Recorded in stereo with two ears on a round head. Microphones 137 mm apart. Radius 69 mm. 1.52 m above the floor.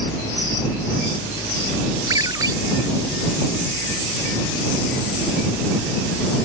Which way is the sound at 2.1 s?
25° right (ahead or behind).